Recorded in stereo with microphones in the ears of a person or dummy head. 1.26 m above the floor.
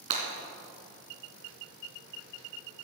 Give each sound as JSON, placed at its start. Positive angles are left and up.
{"t": 0.1, "sound": "breaking glass", "side_deg": -30, "distance_m": 3.0}